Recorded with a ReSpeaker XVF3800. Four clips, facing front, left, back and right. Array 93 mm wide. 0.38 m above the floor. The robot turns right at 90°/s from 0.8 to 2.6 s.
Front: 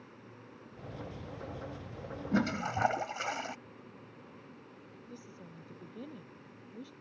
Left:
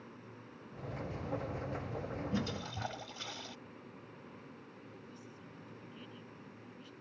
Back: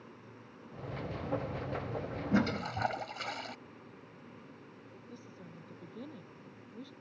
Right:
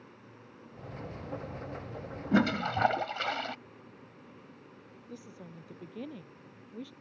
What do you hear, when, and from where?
2.3 s a toilet flushing: 95° right; by 3.6 s 70° right
5.1 s a woman speaking: 85° right